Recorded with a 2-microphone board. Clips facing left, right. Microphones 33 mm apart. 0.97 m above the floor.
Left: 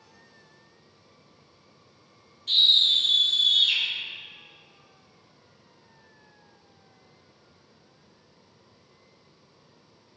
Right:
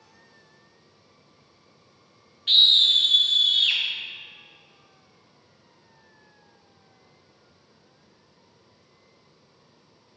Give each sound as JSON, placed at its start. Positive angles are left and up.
{"t": 2.5, "sound": "a scream", "side_deg": -45, "distance_m": 0.8}